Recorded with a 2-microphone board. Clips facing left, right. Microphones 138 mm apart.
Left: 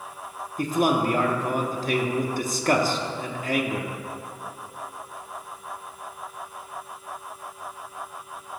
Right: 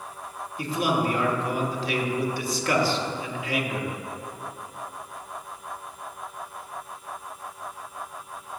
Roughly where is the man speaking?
Left.